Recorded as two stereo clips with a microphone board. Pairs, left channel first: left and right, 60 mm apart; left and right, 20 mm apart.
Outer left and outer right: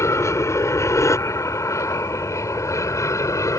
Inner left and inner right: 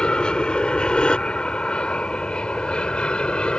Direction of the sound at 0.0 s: 55° left (ahead or behind).